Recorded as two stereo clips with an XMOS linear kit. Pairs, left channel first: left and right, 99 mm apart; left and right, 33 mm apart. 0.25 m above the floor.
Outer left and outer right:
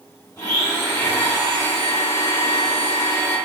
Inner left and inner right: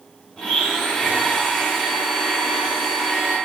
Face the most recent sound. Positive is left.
turn(degrees=25)  # may be behind; listen again after turning